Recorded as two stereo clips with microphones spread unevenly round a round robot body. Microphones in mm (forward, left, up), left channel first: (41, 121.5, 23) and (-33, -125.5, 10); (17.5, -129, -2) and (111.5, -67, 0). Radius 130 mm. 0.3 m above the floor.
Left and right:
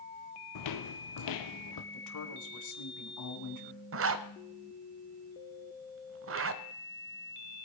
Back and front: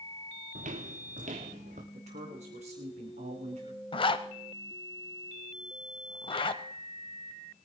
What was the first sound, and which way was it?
Footsteps, 60° left.